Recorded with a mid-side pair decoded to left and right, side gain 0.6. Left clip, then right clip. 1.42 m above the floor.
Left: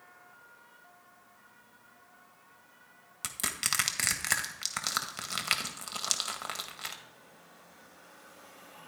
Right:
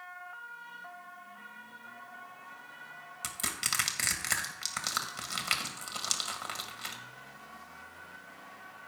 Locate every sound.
3.2 s crushing: 20° left, 1.6 m